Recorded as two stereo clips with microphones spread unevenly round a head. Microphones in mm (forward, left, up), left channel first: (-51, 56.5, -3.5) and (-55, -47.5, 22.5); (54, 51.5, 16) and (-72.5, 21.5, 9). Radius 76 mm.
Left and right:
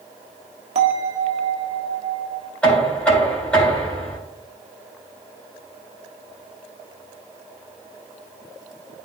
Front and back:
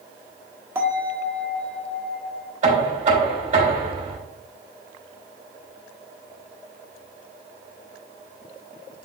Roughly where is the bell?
Right.